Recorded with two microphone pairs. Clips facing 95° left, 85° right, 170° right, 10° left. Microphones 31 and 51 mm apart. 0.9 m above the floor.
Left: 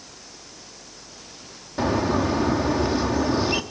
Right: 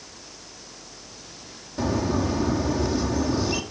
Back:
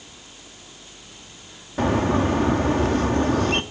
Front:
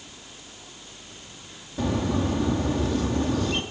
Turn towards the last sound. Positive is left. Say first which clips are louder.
# left 3 dB, back 5 dB
turn(degrees=155)